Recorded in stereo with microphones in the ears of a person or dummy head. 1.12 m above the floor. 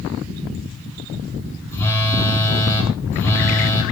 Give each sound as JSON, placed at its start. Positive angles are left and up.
{"t": 1.7, "sound": "a phone buzzing", "side_deg": 15, "distance_m": 5.5}